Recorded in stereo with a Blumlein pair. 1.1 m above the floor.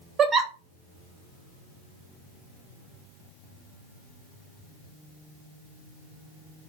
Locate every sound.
0.2 s a giggle: 20° right, 0.6 m